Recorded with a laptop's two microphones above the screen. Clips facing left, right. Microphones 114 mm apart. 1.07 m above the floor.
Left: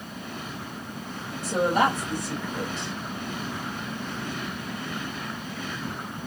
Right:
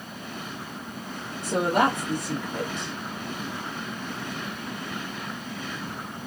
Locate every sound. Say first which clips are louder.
1.4 s a woman speaking: even; 60° right (ahead or behind), 1.3 m